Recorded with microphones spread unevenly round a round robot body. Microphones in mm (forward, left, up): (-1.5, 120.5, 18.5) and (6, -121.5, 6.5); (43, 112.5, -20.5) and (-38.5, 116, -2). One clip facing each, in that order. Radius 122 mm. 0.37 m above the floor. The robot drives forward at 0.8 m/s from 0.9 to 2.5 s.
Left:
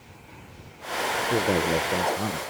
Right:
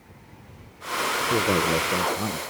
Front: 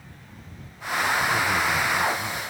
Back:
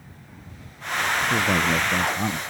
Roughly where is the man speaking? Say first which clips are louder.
Even, back 1 dB; behind.